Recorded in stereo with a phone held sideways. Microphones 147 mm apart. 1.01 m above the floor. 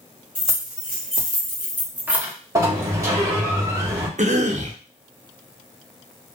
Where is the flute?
No flute in this recording.